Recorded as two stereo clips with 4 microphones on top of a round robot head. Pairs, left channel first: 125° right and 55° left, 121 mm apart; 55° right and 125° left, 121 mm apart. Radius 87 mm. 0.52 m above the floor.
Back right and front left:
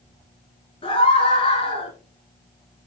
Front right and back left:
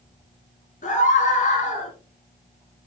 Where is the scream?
75° right, 10 m; by 1.9 s 80° right, 9.5 m.